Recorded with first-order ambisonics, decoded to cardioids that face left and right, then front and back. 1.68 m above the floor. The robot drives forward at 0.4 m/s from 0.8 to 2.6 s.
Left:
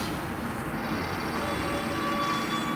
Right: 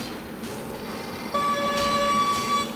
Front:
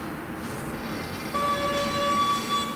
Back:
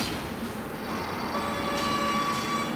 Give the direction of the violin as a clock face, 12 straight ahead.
3 o'clock.